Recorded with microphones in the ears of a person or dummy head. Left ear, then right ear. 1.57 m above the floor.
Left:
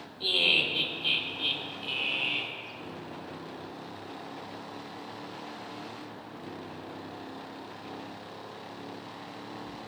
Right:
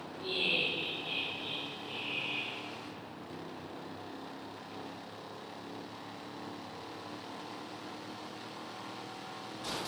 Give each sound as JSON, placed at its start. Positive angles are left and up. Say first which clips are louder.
{"t": 0.2, "sound": "laughter", "louder": "left 7 dB", "side_deg": 85, "distance_m": 3.0}